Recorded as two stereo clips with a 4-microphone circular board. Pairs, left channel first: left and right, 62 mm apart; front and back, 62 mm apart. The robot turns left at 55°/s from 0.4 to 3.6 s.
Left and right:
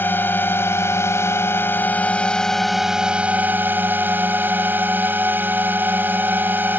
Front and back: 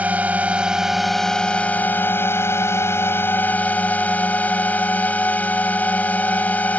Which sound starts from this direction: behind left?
A drone, at 0.0 s.